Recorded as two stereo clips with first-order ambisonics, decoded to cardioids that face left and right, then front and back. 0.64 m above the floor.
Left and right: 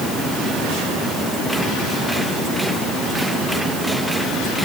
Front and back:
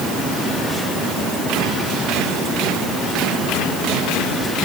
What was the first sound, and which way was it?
Only background noise.